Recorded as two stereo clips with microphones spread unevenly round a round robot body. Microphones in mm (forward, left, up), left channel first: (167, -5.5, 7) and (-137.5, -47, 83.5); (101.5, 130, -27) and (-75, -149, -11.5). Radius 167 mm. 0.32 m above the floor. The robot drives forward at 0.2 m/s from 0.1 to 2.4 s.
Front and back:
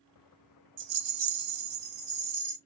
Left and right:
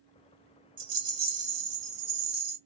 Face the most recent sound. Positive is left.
turn(degrees=-145)